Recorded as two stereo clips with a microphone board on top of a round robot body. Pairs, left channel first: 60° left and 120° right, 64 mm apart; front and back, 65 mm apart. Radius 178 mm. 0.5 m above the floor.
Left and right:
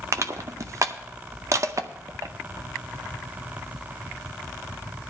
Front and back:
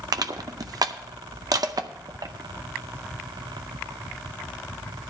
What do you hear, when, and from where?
0.1 s crushing: 160° right, 0.6 m